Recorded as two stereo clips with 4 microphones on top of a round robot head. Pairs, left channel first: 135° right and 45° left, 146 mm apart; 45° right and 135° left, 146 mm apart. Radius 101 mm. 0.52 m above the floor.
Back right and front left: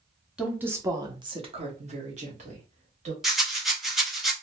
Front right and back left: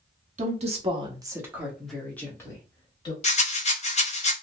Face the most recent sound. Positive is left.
turn(degrees=-40)